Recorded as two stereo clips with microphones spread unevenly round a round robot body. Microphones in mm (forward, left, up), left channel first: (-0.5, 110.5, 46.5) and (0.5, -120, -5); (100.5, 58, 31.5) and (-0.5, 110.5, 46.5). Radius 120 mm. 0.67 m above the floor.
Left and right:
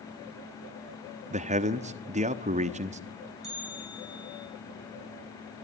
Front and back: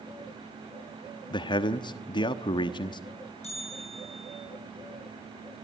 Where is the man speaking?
50° right, 1.1 m.